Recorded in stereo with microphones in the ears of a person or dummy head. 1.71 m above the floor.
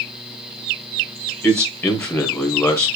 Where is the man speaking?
5° left (ahead or behind), 0.9 m.